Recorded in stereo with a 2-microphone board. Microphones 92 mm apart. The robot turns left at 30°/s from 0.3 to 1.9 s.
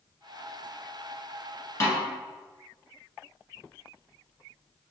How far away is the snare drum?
About 1.1 m.